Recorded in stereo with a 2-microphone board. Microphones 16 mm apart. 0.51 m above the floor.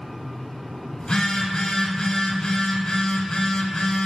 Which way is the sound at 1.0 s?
55° left (ahead or behind).